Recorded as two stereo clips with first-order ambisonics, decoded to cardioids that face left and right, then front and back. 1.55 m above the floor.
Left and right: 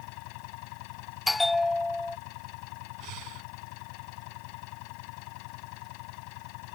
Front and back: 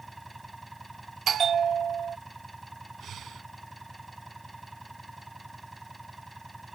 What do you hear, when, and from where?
0.0 s an engine running: 95° left
1.3 s a bell: 160° left
3.0 s breathing: 120° right